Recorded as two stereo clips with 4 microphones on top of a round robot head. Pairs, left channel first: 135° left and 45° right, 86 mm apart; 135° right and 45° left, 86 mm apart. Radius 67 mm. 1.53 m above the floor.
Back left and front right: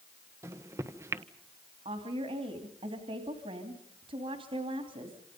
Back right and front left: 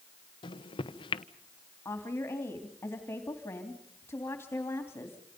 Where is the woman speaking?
75° right, 3 m.